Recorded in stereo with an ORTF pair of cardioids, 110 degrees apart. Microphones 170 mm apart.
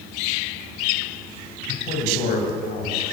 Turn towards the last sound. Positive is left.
turn(degrees=65)